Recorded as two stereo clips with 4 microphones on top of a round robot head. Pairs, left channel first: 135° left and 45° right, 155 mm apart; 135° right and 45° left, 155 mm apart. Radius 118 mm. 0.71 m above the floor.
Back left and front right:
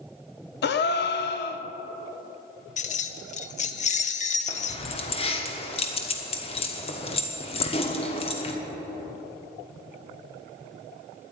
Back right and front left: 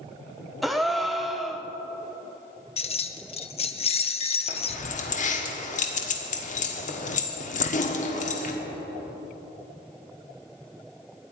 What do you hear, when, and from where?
0.6 s a gasp: 135° left, 0.8 m
2.8 s keys jangling: 175° left, 0.8 m
4.5 s keys jangling: 175° right, 1.4 m